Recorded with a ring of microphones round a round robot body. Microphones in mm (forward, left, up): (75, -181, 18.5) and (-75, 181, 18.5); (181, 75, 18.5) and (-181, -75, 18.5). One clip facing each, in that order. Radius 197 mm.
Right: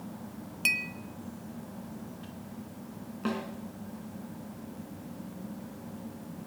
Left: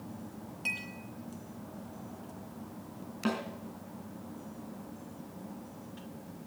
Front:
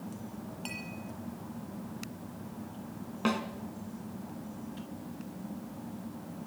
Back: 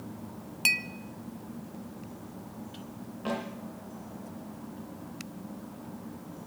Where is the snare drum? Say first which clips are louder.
Even, front 3 dB; 30° left, 2.5 m.